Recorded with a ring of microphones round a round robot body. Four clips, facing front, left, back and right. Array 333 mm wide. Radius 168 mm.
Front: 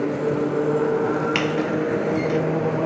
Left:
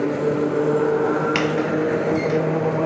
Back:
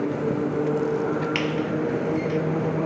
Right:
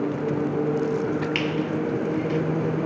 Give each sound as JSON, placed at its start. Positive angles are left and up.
{"t": 1.4, "sound": "a squeak", "azimuth_deg": 65, "distance_m": 1.0}